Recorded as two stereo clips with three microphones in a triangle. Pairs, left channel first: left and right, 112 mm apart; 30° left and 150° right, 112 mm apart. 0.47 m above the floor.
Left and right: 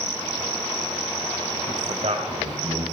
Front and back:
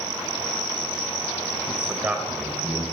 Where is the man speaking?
70° right, 1.9 m.